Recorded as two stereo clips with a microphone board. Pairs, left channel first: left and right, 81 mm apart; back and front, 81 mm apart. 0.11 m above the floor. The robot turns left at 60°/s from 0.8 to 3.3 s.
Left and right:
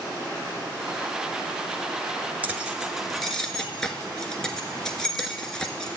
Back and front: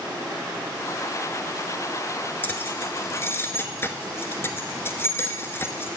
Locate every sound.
2.4 s keys jangling: 145° right, 1.1 m; by 6.0 s 165° left, 1.1 m